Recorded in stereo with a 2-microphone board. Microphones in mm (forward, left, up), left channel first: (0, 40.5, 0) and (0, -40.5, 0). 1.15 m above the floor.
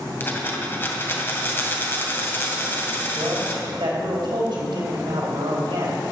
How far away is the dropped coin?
About 2 m.